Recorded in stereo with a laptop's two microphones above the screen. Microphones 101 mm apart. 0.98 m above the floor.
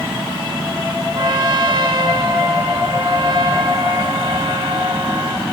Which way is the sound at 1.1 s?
50° right (ahead or behind).